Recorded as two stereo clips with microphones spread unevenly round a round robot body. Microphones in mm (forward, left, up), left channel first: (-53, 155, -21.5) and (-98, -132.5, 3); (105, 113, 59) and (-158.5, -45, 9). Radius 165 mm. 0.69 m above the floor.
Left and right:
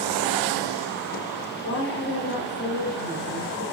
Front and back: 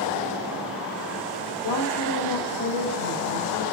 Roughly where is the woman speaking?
Ahead left.